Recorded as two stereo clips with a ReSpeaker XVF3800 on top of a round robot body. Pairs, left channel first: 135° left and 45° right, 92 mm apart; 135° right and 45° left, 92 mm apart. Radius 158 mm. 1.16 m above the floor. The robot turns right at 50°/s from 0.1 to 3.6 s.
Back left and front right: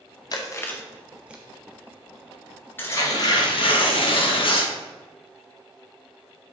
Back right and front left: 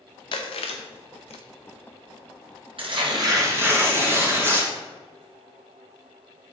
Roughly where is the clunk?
No clunk in this recording.